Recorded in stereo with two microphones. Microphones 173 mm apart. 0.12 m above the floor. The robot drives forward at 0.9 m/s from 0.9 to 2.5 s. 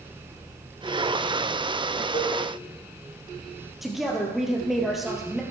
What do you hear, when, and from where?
2.1 s a cowbell: 35° left (ahead or behind), 3 m
3.8 s a woman speaking: centre (ahead or behind), 3 m